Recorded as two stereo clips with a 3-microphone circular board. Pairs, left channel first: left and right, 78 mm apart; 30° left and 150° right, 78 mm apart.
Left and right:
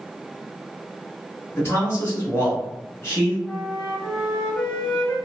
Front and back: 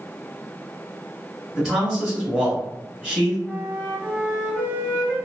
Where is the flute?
140° left, 1.1 m.